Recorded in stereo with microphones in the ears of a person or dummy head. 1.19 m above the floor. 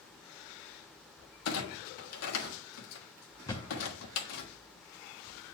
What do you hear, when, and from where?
1.4 s a clunk: 75° left (ahead or behind), 1.3 m
3.5 s a thud: 15° left (ahead or behind), 0.7 m